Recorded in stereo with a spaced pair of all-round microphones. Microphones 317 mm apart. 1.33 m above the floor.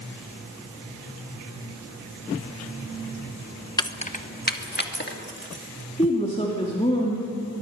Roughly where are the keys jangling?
Centre.